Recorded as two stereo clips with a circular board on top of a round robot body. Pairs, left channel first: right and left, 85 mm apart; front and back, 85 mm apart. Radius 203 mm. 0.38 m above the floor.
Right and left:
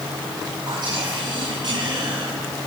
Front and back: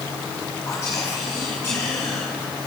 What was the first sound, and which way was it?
Whispering, 65° left.